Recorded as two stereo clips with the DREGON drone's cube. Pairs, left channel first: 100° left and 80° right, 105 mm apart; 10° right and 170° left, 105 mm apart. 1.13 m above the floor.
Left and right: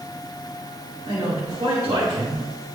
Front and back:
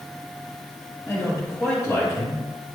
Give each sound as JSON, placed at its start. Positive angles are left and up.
{"t": 1.1, "sound": "a man speaking", "azimuth_deg": -75, "distance_m": 4.0}